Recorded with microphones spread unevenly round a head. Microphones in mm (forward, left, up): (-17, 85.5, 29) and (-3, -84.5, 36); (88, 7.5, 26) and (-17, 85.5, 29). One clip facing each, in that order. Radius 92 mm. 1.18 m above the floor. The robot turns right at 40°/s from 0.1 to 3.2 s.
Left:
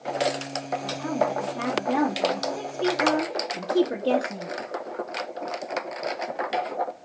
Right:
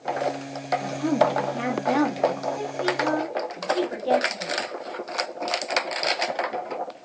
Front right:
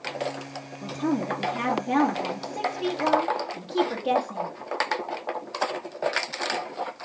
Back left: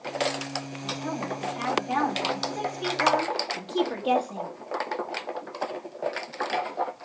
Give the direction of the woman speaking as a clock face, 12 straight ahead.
2 o'clock.